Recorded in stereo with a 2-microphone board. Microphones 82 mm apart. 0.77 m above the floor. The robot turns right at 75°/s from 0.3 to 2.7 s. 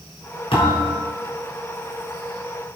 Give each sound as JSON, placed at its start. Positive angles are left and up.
{"t": 0.5, "sound": "a thud", "azimuth_deg": 100, "distance_m": 4.0}